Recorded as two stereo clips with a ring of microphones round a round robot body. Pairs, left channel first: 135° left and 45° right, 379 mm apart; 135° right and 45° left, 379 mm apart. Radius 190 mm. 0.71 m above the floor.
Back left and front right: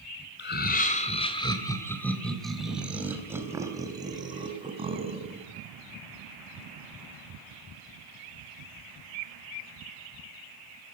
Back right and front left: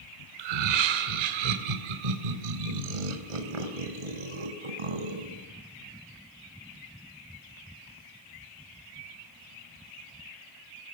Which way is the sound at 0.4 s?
70° left.